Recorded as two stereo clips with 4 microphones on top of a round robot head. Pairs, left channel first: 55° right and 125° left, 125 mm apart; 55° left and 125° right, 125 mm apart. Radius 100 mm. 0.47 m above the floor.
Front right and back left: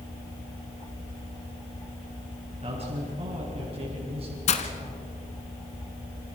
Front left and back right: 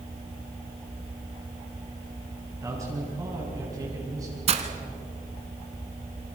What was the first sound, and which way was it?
A man speaking, 170° left.